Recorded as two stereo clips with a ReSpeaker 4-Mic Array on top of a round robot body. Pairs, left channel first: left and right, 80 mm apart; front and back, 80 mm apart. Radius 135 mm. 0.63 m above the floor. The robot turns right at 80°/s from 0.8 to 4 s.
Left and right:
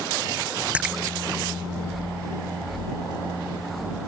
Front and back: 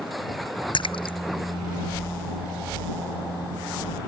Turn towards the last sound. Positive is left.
turn(degrees=-120)